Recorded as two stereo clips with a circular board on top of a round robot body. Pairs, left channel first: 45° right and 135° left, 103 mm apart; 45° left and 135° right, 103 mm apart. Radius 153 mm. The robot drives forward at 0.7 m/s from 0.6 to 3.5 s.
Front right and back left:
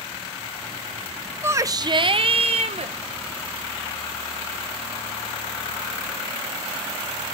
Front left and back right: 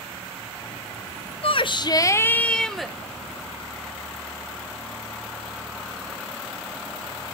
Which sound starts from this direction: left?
A shout, at 1.4 s.